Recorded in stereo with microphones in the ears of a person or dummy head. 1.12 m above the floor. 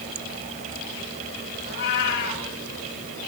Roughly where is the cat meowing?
Left.